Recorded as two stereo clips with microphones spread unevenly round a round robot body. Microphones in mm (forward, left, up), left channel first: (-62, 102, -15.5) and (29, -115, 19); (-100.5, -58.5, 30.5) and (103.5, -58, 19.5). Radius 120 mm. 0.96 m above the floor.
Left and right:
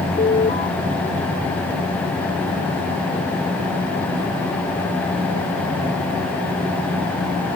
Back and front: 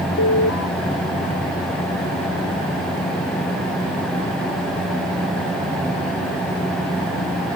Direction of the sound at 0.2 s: 170° left.